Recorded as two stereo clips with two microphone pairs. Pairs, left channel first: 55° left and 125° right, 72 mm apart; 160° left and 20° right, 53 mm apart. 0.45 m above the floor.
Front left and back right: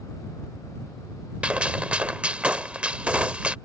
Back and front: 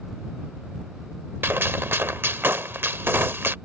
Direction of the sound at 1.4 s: 55° right.